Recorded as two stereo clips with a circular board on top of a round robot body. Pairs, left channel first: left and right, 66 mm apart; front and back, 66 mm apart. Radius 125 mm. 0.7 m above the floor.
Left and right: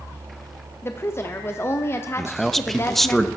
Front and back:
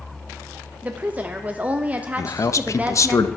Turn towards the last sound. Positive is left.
turn(degrees=5)